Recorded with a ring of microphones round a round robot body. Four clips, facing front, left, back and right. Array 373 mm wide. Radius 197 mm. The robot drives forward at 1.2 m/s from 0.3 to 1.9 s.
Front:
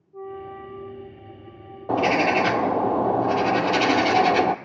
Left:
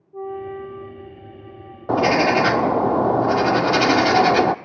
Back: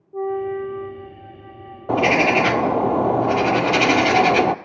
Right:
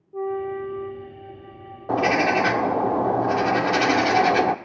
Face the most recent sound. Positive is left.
turn(degrees=125)